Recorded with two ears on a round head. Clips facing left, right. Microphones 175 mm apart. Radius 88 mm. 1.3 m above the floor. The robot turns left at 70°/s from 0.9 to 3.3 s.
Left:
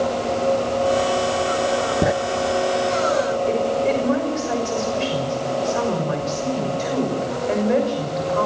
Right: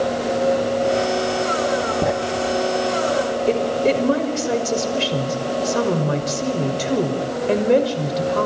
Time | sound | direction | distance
2.0 | writing | 10° left (ahead or behind) | 0.5 m
3.5 | a woman speaking | 40° right (ahead or behind) | 6 m